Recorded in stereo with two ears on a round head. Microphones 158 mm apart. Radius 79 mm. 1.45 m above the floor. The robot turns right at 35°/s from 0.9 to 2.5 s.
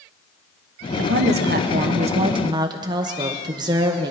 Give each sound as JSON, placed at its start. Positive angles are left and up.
{"t": 1.0, "sound": "a woman speaking", "azimuth_deg": -80, "distance_m": 0.9}